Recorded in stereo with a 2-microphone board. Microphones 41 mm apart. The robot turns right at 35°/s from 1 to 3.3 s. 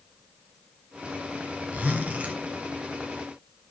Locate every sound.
1.7 s a zipper: 35° right (ahead or behind), 1.9 m